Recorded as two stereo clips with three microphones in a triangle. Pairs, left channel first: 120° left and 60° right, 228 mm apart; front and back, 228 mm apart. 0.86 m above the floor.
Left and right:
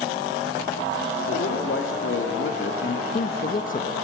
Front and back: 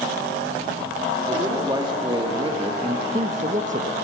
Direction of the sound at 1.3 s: 110° left.